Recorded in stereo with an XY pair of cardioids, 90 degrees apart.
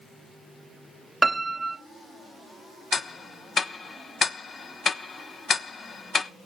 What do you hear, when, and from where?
1.2 s a piano: 20° right, 1.3 m
2.9 s ticking: 45° left, 1.1 m